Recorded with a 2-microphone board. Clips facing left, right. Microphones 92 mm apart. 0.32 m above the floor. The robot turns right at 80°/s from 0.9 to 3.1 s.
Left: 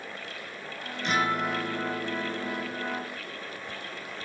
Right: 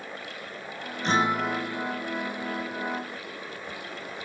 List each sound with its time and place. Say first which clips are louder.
1.0 s a guitar: right 2 dB; 35° right, 0.9 m; by 3.1 s 130° left, 0.9 m